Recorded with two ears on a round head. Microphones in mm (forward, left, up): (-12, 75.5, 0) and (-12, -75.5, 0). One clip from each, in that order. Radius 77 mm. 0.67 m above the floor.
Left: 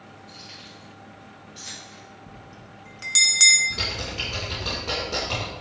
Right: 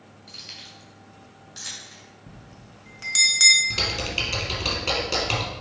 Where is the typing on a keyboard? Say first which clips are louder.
Right 3 dB; 65° right (ahead or behind), 2.5 m.